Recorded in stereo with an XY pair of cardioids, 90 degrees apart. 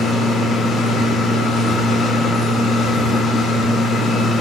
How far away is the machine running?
About 0.9 m.